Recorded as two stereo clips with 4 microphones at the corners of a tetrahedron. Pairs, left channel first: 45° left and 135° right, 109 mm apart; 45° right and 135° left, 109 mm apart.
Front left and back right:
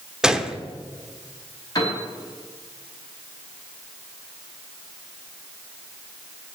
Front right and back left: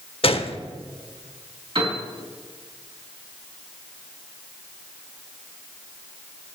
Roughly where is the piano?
Left.